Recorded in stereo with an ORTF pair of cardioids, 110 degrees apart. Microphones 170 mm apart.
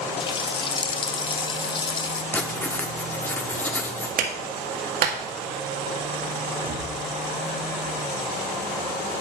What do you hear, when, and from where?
0.2 s a running tap: 30° left, 0.8 m
2.3 s writing: 10° left, 1.4 m
4.2 s a clap: 60° right, 2 m
6.5 s breathing: 40° right, 4 m